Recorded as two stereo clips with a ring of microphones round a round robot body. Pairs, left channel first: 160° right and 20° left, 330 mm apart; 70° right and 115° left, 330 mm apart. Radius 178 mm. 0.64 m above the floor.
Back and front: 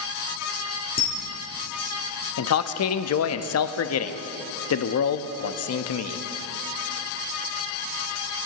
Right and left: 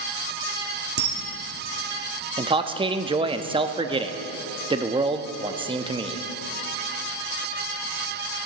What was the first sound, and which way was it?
A camera shutter, 140° left.